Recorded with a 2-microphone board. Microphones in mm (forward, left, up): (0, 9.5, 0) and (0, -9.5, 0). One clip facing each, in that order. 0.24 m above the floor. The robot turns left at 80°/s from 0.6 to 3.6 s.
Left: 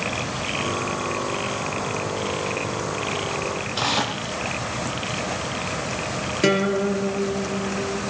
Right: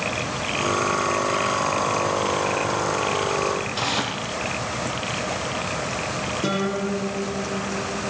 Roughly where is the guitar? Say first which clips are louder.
Left 7 dB; left.